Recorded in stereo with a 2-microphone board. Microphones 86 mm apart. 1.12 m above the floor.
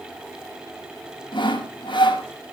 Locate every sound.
1.3 s sawing: 70° left (ahead or behind), 5 m